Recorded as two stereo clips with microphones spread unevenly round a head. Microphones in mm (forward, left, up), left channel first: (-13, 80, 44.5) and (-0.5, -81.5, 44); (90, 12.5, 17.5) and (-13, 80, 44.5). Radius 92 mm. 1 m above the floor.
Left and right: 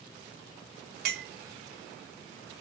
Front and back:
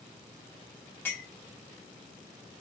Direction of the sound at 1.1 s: 115° right.